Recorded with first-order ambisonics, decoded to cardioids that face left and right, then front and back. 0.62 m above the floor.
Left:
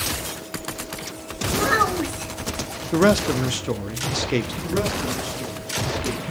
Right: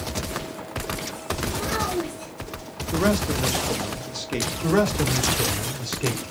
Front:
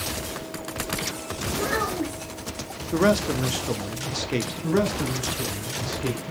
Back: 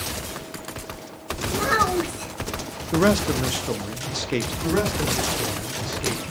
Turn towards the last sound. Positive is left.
turn(degrees=-100)